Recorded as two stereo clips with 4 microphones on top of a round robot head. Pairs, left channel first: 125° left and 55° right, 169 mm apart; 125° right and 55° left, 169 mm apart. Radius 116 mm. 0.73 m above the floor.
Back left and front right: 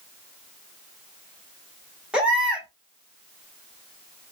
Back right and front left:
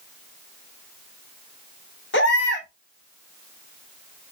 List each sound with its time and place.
2.1 s a baby crying: 140° right, 1.9 m